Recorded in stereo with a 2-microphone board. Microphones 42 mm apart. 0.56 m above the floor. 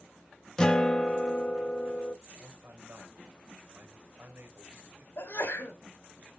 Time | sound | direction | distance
0.6 | a guitar | 15° left (ahead or behind) | 0.9 m
2.3 | a man speaking | 70° right (ahead or behind) | 2.5 m
5.2 | a sneeze | 65° left (ahead or behind) | 2.5 m